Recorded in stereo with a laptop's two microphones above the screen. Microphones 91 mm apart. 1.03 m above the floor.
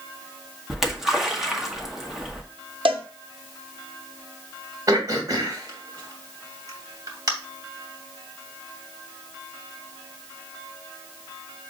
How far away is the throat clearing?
About 2.5 m.